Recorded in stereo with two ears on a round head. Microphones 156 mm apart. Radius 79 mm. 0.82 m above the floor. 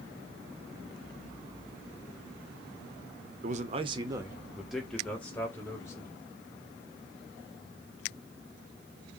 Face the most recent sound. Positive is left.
turn(degrees=15)  # may be behind; listen again after turning